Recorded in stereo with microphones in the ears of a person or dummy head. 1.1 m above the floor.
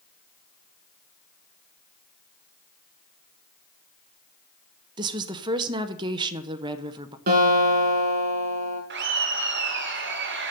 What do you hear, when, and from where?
5.0 s a woman speaking: 15° right (ahead or behind), 0.6 m
7.3 s a guitar: 50° right (ahead or behind), 4 m
8.9 s laughter: 50° right (ahead or behind), 1.3 m